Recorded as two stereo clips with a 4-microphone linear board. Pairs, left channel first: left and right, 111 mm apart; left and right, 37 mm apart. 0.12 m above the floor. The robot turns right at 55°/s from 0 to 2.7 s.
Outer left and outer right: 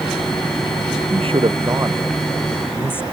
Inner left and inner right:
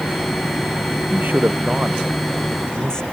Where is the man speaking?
70° right; by 3.0 s 20° left.